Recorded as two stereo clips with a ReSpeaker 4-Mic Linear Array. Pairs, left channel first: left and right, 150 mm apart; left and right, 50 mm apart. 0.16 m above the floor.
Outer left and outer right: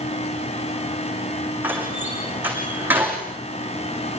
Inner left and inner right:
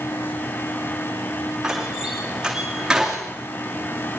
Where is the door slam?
10° right (ahead or behind), 8 m.